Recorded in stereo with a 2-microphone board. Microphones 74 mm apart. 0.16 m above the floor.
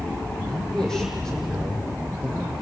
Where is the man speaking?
10° left (ahead or behind), 7 m.